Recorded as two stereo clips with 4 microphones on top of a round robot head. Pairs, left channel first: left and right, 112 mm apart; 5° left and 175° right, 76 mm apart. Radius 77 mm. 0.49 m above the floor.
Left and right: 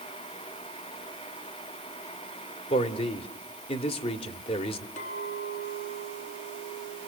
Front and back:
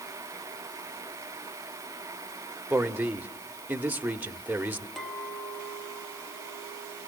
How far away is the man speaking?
About 1.5 m.